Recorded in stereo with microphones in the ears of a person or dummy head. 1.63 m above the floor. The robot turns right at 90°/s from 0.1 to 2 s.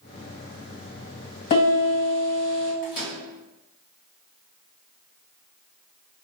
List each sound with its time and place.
1.5 s a piano: 65° left, 1.5 m; by 2.7 s 110° left, 1.5 m
2.8 s a microwave: 55° left (ahead or behind), 1.1 m